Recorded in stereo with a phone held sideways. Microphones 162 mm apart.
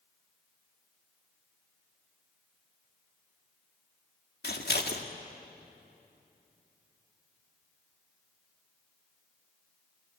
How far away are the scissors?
About 1.9 m.